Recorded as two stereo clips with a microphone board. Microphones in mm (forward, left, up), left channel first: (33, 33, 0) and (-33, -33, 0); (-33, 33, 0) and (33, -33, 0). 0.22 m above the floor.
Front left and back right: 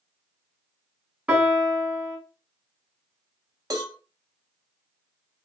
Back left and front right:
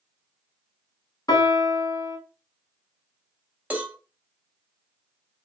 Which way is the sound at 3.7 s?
110° right.